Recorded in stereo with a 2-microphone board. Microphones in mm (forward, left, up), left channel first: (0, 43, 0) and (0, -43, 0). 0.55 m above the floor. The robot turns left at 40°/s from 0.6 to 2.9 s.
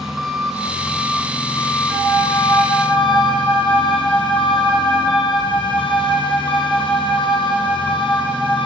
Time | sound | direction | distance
0.0 | an engine running | 175° right | 4 m
1.9 | a flute | 40° left | 8.5 m